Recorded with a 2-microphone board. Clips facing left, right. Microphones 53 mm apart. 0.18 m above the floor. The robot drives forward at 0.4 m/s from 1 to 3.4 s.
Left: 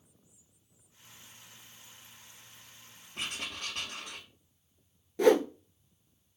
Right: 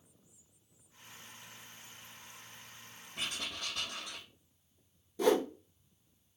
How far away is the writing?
About 1.8 m.